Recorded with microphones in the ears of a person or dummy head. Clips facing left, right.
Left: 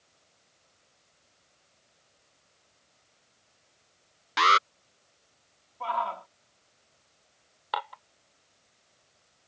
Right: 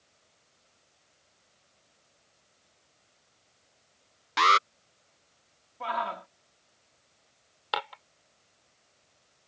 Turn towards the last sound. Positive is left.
turn(degrees=-40)  # may be behind; listen again after turning